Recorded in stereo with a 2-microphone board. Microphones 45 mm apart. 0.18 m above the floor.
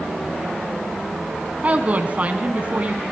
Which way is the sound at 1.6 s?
40° right (ahead or behind).